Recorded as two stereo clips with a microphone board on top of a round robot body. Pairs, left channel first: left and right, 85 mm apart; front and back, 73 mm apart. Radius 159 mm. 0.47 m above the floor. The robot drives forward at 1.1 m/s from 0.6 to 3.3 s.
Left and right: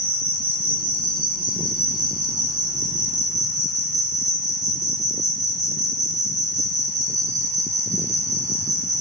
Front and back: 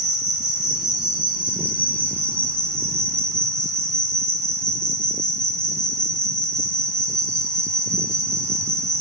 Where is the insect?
100° right, 4.5 m; by 9.0 s 130° right, 6 m.